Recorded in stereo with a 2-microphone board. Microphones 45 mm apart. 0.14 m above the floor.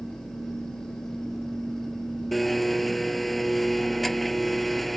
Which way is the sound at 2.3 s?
Centre (ahead or behind).